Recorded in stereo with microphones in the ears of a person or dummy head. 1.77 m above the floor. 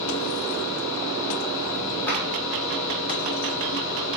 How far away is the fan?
About 2.0 m.